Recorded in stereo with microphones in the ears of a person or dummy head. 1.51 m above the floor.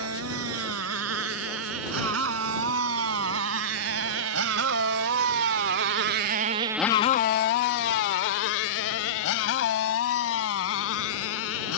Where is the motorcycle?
80° right; by 11.8 s 80° left.